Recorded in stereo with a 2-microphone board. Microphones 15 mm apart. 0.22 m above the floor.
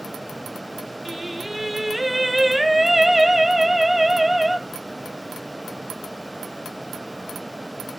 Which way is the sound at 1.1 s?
15° right (ahead or behind).